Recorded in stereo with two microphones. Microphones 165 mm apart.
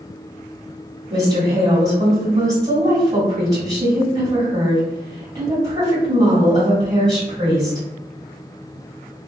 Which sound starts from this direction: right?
A woman speaking, at 1.1 s.